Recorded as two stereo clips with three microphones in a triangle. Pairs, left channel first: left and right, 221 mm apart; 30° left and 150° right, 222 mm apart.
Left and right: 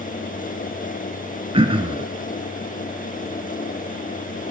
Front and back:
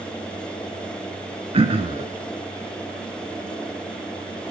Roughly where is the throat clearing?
Behind right.